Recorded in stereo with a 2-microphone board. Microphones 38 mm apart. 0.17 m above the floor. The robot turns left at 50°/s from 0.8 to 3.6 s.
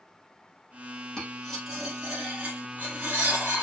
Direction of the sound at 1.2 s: 20° left (ahead or behind).